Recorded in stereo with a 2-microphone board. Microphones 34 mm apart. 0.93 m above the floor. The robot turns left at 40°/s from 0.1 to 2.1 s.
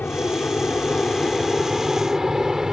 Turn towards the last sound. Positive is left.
turn(degrees=-15)  # may be behind; listen again after turning